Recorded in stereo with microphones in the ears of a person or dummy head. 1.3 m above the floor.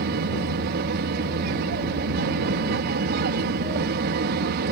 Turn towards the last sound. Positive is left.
turn(degrees=-55)  # may be behind; listen again after turning